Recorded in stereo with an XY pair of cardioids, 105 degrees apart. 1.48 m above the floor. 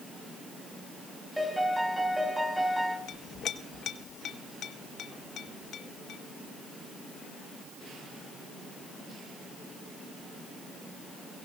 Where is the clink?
65° left, 1.8 m.